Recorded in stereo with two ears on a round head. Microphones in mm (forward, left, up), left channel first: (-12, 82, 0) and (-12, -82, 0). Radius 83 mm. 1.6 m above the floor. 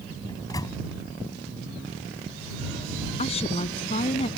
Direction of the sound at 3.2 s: 35° left (ahead or behind).